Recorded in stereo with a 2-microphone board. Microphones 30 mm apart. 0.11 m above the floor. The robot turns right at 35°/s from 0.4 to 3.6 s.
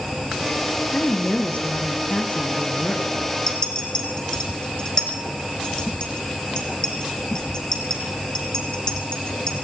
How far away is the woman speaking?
About 3 m.